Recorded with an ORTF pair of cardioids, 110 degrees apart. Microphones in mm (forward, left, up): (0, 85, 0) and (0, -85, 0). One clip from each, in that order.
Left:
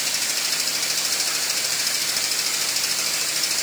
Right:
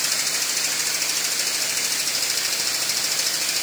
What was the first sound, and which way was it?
Only background noise.